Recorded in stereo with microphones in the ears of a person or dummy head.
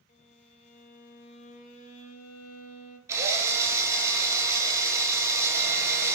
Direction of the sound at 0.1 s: 35° left (ahead or behind).